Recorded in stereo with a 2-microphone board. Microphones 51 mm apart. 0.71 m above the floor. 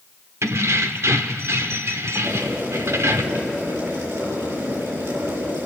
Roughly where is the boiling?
Right.